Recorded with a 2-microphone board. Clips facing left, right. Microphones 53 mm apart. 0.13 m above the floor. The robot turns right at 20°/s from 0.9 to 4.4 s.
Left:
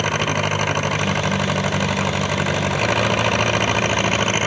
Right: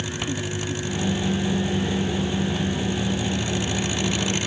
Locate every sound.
0.0 s an engine running: 65° left; by 4.5 s 135° left